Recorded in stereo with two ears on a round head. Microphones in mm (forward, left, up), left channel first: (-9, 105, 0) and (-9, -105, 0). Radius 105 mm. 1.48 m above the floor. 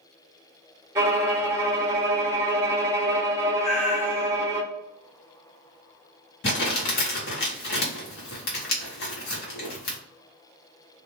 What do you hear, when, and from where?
0.9 s a violin: 10° right (ahead or behind), 1.2 m
3.6 s a cat meowing: 15° left (ahead or behind), 1.4 m
6.4 s crumpling: 45° left (ahead or behind), 1.1 m